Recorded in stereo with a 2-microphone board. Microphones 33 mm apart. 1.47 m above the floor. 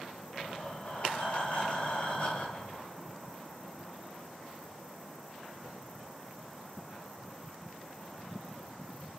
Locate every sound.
0.3 s breathing: 40° left (ahead or behind), 1.2 m